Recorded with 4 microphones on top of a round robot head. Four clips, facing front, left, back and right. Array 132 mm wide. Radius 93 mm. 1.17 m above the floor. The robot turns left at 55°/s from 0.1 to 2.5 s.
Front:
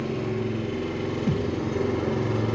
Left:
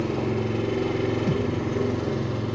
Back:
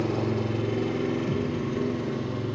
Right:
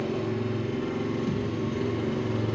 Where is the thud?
25° left, 0.7 m; by 1.5 s 10° left, 0.7 m.